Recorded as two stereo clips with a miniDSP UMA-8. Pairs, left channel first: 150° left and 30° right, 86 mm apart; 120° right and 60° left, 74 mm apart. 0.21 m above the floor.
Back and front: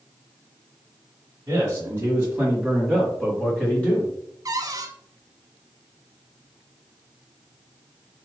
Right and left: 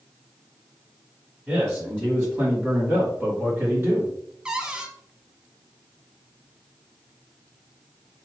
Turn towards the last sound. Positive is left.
turn(degrees=-15)